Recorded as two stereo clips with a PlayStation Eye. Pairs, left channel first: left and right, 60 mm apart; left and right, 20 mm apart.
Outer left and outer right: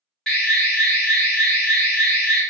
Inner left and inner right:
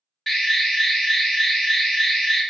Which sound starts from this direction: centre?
An alarm, at 0.3 s.